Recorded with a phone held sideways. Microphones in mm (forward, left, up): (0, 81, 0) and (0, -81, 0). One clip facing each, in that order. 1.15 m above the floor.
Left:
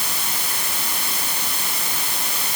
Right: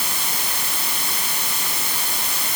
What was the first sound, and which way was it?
Only background noise.